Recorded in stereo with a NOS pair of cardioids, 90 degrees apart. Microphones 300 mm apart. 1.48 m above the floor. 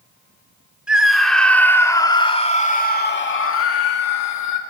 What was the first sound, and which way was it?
A scream, 5° right.